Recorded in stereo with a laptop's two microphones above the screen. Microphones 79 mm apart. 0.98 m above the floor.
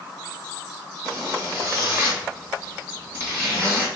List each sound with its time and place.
1.0 s a zipper: 25° right (ahead or behind), 1.6 m